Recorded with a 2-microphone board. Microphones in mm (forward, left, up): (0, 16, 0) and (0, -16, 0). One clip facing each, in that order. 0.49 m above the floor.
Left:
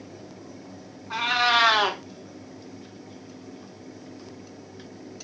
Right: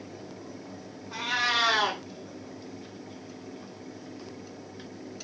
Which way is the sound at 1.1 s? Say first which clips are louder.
Left 6 dB; 70° left (ahead or behind).